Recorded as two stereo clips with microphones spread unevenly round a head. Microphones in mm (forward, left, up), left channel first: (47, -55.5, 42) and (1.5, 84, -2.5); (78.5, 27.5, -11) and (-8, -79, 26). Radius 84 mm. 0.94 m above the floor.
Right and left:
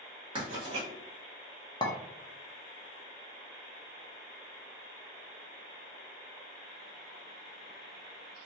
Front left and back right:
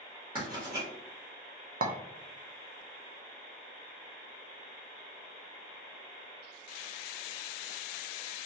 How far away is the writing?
About 1.3 m.